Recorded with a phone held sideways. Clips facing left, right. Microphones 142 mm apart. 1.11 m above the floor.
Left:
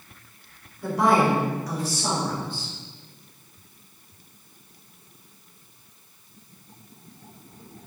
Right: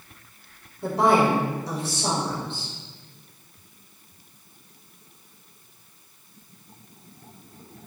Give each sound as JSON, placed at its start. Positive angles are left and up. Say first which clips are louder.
{"t": 0.8, "sound": "a woman speaking", "louder": "right 1 dB", "side_deg": -30, "distance_m": 4.5}